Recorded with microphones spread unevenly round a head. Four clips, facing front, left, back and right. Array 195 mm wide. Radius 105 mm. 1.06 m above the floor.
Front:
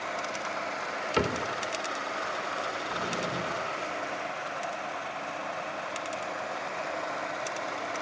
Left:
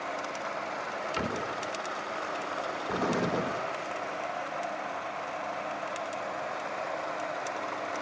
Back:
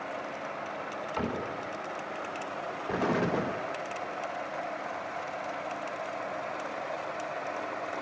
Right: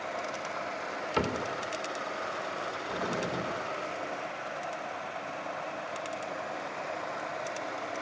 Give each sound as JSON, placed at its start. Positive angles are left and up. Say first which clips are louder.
{"t": 1.2, "sound": "a cupboard door", "louder": "right 4 dB, front 5 dB", "azimuth_deg": -30, "distance_m": 3.5}
{"t": 2.9, "sound": "an explosion", "louder": "left 5 dB, back 4 dB", "azimuth_deg": 125, "distance_m": 1.9}